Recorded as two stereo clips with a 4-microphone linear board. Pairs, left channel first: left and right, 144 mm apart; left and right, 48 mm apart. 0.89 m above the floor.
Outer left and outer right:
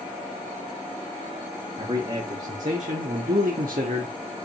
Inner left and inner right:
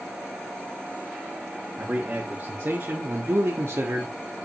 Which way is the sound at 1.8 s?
40° right (ahead or behind).